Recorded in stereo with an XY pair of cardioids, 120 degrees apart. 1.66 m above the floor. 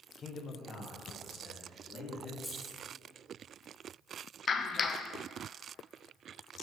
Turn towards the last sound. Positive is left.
turn(degrees=40)